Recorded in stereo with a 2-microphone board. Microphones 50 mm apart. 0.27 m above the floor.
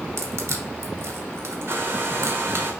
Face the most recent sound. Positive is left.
turn(degrees=-50)  # may be behind; listen again after turning